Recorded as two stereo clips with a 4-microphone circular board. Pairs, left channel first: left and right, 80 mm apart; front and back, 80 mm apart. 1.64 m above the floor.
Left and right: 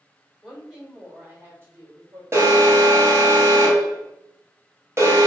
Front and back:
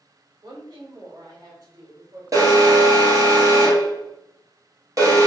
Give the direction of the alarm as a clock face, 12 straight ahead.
5 o'clock.